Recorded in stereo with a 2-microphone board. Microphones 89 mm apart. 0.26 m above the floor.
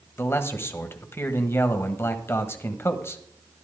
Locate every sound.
0.2 s a man speaking: 30° left (ahead or behind), 1.3 m